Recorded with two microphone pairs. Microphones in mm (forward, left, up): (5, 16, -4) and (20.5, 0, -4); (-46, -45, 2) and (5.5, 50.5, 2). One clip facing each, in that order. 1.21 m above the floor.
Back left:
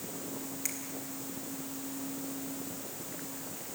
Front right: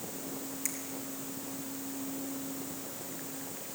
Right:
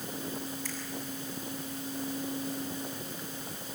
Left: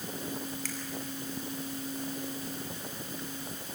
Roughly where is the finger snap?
Ahead left.